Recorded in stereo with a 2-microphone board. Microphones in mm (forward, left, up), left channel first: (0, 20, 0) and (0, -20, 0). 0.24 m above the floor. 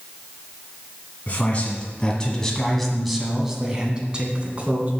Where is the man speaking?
35° left (ahead or behind), 1.7 m; by 4.9 s 35° right (ahead or behind), 2.0 m.